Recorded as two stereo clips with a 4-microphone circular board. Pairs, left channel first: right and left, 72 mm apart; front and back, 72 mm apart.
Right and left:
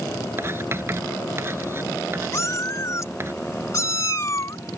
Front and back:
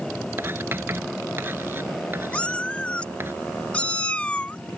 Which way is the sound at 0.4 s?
135° left.